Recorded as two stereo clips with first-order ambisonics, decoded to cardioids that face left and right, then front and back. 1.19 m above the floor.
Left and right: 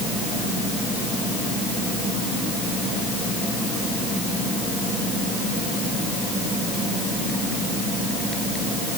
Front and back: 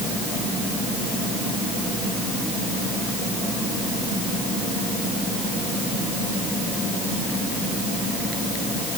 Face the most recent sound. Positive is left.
No sound to turn to.